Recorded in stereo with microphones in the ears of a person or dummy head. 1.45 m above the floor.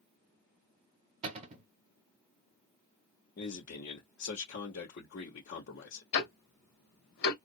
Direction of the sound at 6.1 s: 60° left (ahead or behind).